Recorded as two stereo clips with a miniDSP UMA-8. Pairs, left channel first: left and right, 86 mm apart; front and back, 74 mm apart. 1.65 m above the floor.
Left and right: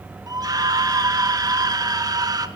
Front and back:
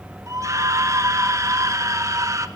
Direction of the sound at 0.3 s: 135° right.